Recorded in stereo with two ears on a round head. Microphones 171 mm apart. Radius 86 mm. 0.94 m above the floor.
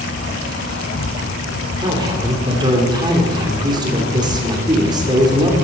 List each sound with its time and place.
0.0 s an insect: 55° left (ahead or behind), 1.6 m
1.8 s a man speaking: 25° right (ahead or behind), 2.5 m